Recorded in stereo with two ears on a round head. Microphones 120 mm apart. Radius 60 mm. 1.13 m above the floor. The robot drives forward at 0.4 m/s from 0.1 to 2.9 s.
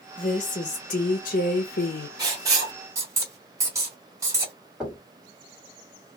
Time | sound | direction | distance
0.2 | a woman speaking | 40° left (ahead or behind) | 1.0 m
2.2 | writing | 30° right (ahead or behind) | 1.4 m
4.8 | knocking | 5° right (ahead or behind) | 2 m